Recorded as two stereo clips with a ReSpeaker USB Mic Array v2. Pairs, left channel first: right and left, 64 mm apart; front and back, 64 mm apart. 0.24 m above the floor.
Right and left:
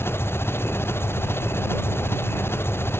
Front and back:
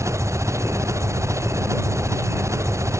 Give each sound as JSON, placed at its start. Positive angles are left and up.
{"t": 0.0, "sound": "an engine running", "azimuth_deg": -140}